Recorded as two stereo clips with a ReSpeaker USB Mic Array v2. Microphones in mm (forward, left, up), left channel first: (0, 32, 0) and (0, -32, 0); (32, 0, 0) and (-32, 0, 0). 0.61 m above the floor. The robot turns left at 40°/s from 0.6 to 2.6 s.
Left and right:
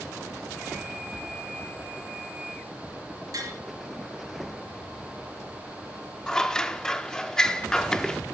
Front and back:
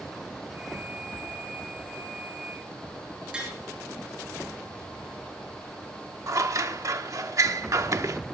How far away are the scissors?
About 0.7 m.